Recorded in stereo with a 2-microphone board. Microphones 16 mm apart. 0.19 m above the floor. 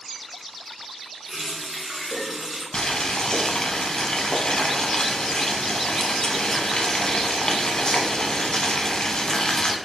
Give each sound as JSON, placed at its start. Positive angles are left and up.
{"t": 1.3, "sound": "a running tap", "side_deg": -15, "distance_m": 1.3}
{"t": 2.7, "sound": "boiling", "side_deg": 45, "distance_m": 0.5}